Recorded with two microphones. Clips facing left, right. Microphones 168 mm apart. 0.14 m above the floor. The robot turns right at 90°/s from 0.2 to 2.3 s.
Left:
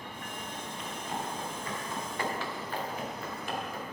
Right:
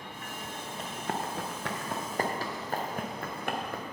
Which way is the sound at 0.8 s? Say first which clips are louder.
Right 3 dB; 40° right (ahead or behind).